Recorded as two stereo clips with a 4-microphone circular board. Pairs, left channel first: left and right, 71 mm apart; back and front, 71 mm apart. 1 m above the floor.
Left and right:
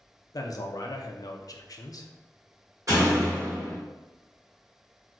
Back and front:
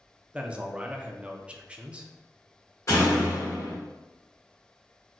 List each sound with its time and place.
0.3 s a man speaking: 75° left, 0.5 m
2.9 s a door slam: 135° right, 1.9 m